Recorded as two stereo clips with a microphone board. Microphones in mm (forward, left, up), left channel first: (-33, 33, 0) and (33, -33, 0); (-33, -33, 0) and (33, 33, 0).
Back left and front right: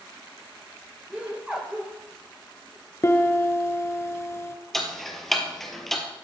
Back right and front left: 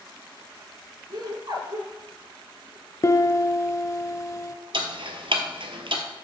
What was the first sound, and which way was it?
Laughter, 30° left.